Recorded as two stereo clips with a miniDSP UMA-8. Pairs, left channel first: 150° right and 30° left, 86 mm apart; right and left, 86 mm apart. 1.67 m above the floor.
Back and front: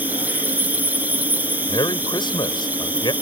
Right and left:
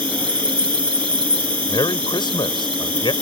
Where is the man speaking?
120° right.